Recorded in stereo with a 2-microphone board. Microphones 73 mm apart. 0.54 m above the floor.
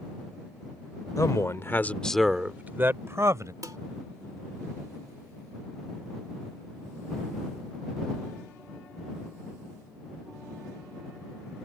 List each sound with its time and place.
1.2 s a man speaking: 55° left (ahead or behind); by 3.5 s 50° right (ahead or behind)
3.6 s dishes clattering: 55° right (ahead or behind)